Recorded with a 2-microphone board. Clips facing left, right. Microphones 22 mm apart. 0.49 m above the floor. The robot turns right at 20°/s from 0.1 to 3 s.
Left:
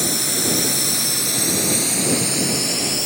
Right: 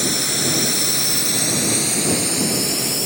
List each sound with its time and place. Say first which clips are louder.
0.0 s a drone: right 1 dB; 10° right (ahead or behind); by 3.1 s 5° left (ahead or behind)